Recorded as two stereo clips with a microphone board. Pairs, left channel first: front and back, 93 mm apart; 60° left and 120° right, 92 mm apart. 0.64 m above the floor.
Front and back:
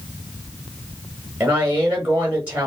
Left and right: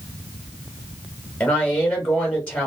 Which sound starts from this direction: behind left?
A woman speaking, at 1.4 s.